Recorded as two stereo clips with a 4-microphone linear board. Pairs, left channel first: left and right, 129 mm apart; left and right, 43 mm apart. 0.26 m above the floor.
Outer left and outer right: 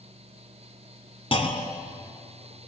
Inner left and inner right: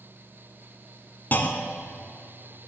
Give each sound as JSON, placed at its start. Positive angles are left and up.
{"t": 1.3, "sound": "a clunk", "side_deg": 45, "distance_m": 1.1}